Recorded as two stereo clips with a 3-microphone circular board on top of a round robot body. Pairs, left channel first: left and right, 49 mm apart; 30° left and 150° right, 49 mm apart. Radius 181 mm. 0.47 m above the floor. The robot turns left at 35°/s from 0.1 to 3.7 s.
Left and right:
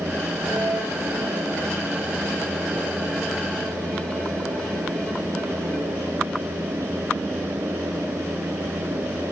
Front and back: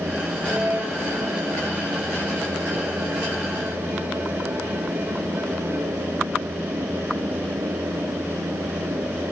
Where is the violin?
80° right, 6 m; by 6.0 s 165° left, 6 m.